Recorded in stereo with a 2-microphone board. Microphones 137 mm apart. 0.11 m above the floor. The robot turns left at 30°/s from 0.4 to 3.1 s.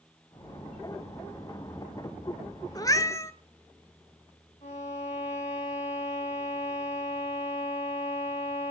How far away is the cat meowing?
About 1.0 m.